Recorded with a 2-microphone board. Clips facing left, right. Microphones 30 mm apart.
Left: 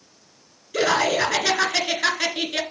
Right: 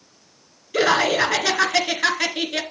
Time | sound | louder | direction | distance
0.7 | laughter | right 2 dB | 20° right (ahead or behind) | 1.4 m